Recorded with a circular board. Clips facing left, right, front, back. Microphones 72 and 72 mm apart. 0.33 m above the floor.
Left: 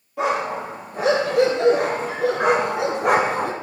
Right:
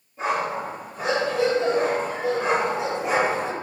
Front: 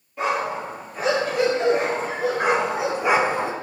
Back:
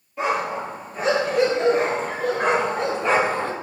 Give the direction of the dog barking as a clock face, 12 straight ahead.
9 o'clock.